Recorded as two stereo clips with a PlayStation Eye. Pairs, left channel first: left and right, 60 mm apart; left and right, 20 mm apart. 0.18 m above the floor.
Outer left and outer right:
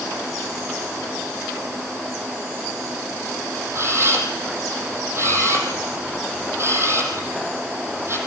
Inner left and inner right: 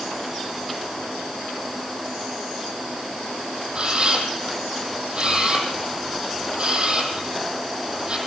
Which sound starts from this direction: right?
A camera shutter, at 3.8 s.